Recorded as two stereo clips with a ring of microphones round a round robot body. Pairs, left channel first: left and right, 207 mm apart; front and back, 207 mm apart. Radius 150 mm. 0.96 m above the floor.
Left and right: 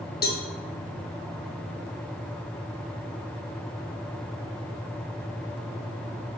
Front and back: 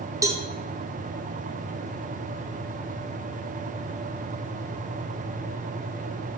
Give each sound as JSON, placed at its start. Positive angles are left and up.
{"t": 0.2, "sound": "a cowbell", "azimuth_deg": 110, "distance_m": 1.1}